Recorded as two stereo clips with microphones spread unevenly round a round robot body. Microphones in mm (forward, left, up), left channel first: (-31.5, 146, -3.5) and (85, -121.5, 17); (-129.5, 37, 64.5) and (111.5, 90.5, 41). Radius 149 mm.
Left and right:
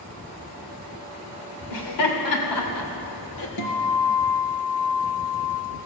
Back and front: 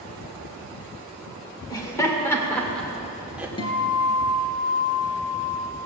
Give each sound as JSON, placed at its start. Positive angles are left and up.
{"t": 1.7, "sound": "laughter", "azimuth_deg": 120, "distance_m": 2.5}
{"t": 3.6, "sound": "a guitar", "azimuth_deg": 125, "distance_m": 2.5}